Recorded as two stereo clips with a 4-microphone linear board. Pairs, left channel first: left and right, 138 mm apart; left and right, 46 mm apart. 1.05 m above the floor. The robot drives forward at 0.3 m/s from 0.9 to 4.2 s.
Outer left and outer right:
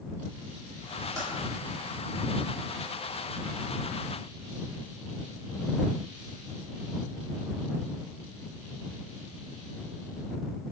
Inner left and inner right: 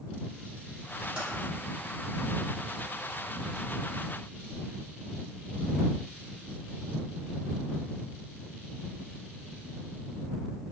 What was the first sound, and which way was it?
Typing on a keyboard, 25° right (ahead or behind).